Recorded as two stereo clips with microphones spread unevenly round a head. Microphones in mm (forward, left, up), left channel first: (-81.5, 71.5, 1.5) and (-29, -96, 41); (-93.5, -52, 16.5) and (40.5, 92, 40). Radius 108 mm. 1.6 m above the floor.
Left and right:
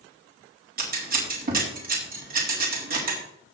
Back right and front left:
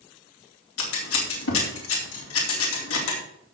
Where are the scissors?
110° right, 3.5 m.